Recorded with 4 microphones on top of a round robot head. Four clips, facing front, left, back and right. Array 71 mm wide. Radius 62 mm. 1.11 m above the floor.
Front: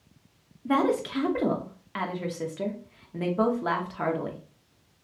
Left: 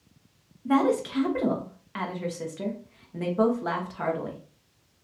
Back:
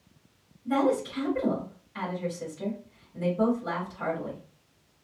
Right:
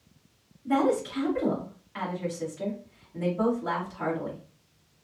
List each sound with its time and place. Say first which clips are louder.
0.7 s a woman speaking: left 2 dB, front 1 dB; 30° left, 1.2 m